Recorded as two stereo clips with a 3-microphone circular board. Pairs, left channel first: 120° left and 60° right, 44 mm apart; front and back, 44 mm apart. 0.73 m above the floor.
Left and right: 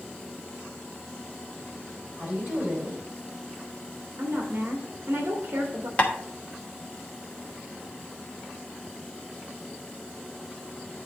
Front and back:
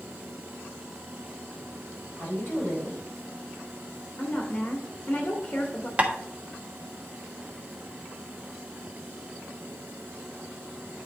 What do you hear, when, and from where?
2.2 s a woman speaking: straight ahead, 3.5 m
4.2 s a woman speaking: 30° right, 1.6 m
6.0 s tapping: 155° left, 1.0 m